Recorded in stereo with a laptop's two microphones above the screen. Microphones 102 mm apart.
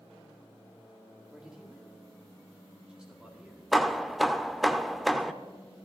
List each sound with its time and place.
1.3 s a man speaking: 10° right (ahead or behind), 2.5 m
3.7 s hammering: centre (ahead or behind), 0.7 m